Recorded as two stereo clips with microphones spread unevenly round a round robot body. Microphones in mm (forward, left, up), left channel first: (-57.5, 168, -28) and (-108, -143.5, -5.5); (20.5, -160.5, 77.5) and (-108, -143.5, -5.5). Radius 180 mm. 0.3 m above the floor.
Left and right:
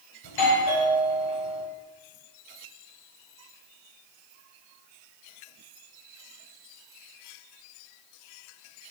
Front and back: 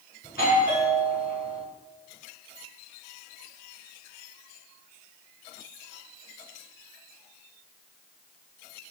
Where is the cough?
I don't hear a cough.